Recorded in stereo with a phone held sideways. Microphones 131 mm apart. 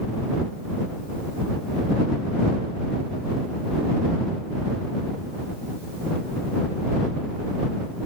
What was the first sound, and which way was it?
Only background noise.